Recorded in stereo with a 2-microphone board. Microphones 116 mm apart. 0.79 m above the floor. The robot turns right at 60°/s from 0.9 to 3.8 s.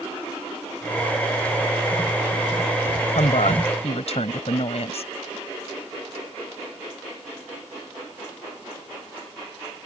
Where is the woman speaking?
75° left; by 5.1 s 115° left.